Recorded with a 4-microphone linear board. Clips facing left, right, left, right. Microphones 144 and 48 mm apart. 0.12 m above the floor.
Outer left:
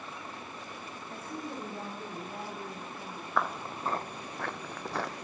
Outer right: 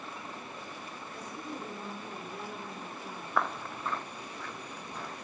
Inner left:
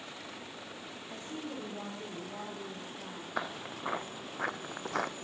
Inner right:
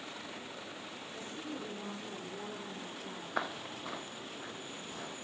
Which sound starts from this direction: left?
A woman speaking, at 1.1 s.